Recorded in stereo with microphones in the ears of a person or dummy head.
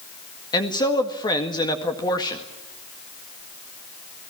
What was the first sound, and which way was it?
A man speaking, 25° left (ahead or behind).